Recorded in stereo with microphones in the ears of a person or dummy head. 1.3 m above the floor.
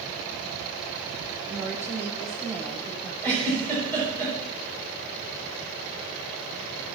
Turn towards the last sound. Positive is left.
turn(degrees=5)  # may be behind; listen again after turning